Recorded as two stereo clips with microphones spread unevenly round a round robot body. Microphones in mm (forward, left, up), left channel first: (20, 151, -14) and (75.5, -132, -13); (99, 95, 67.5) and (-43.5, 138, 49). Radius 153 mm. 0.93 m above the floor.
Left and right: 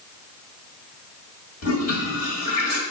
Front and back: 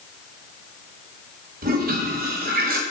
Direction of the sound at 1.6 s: 145° left.